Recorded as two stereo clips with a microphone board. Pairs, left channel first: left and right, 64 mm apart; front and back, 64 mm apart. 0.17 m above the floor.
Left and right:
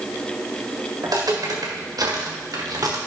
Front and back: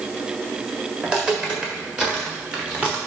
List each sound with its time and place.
1.0 s footsteps: 105° right, 4 m